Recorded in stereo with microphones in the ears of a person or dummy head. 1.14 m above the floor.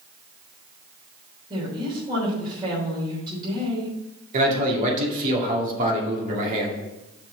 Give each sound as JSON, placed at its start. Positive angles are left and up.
{"t": 1.5, "sound": "a woman speaking", "side_deg": -30, "distance_m": 3.5}
{"t": 4.3, "sound": "a man speaking", "side_deg": -50, "distance_m": 2.0}